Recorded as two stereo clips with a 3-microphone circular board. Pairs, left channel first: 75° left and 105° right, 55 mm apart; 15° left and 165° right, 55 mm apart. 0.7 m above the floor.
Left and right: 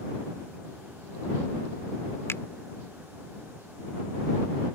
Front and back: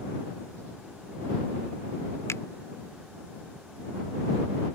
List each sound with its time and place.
2.3 s a finger snap: 40° left